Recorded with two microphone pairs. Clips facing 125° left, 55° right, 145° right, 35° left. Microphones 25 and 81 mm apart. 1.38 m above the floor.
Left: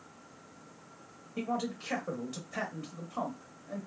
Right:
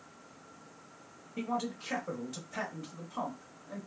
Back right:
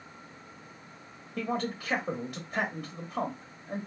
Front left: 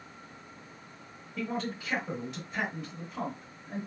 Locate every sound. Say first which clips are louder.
1.4 s a man speaking: left 1 dB, back right 2 dB; 170° right, 1.0 m